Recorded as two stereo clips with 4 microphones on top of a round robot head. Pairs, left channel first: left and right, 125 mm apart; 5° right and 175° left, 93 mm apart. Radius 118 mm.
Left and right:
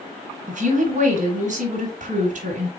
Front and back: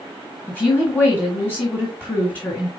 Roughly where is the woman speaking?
Right.